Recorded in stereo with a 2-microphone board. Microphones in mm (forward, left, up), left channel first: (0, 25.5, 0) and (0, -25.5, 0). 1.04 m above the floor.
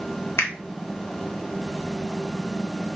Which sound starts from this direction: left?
A finger snap, at 0.4 s.